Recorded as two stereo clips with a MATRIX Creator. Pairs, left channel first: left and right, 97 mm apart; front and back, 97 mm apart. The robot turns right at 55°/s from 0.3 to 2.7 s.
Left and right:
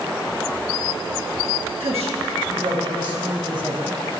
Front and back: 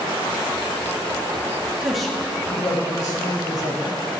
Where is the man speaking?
100° right, 1.7 m; by 4.0 s 50° right, 1.7 m.